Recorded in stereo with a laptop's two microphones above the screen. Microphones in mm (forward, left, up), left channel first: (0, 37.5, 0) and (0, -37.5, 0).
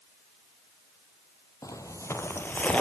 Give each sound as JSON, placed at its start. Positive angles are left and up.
{"t": 1.6, "sound": "footsteps", "side_deg": 50, "distance_m": 1.6}